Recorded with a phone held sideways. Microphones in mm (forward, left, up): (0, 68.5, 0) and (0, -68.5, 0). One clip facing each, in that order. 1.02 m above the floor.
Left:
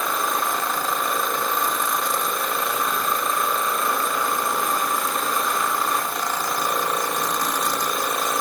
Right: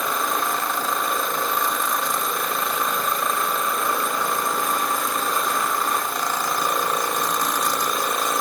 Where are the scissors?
No scissors in this recording.